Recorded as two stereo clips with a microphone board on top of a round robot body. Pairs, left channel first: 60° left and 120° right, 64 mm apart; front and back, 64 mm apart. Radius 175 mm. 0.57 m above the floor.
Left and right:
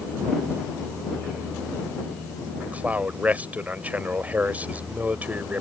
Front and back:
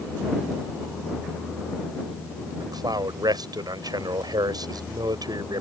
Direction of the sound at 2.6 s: 170° left.